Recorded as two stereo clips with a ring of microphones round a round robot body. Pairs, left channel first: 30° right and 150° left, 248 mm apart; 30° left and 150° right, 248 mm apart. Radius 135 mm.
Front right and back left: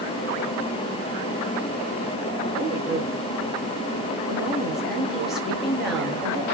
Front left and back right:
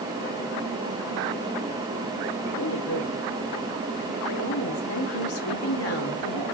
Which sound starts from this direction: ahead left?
A woman speaking, at 2.5 s.